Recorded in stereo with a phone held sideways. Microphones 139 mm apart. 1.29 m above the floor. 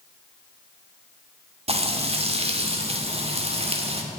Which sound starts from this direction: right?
Frying, at 1.7 s.